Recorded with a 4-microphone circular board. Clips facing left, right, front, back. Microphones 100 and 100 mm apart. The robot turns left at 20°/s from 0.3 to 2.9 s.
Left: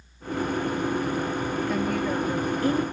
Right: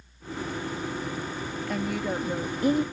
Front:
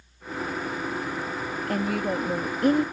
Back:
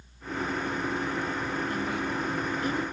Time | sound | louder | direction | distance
1.7 | a woman speaking | left 1 dB, front 4 dB | straight ahead | ?